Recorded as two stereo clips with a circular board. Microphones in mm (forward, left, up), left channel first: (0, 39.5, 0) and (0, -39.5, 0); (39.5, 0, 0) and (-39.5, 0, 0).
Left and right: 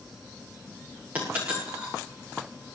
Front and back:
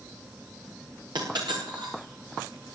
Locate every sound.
1.1 s a dropped coin: 160° right, 8 m